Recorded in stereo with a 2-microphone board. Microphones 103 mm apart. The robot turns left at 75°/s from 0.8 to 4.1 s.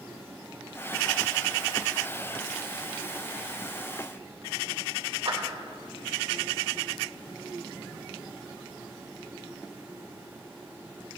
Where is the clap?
85° right, 2 m.